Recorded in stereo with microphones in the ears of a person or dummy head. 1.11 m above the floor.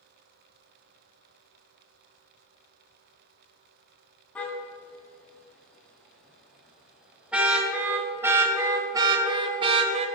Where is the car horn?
5° left (ahead or behind), 4 m; by 10.1 s 40° right (ahead or behind), 1.8 m.